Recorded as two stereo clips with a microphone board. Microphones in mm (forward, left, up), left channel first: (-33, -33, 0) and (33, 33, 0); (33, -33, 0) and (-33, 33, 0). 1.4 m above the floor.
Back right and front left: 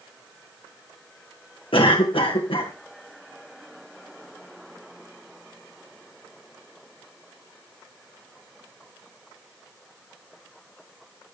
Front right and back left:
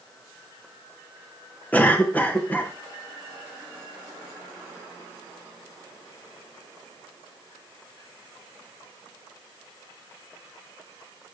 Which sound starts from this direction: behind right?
A cough, at 1.7 s.